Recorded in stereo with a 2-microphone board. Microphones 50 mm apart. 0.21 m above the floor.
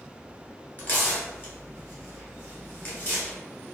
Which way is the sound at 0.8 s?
40° left (ahead or behind).